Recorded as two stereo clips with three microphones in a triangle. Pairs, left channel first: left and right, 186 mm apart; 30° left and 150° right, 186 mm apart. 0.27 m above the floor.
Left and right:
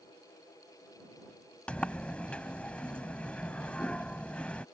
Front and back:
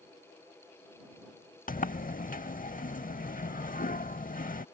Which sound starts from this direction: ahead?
A sliding door, at 1.7 s.